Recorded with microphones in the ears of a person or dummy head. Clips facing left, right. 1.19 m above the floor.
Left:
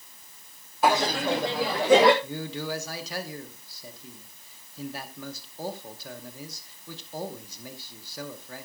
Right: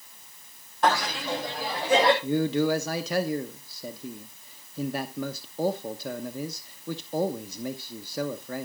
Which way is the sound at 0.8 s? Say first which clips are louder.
Left 2 dB; 5° left (ahead or behind).